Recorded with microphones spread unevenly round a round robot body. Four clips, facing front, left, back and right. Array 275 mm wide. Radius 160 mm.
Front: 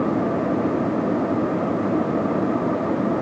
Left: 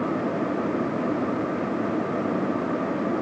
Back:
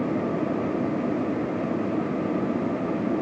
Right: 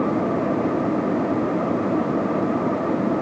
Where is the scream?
I don't hear a scream.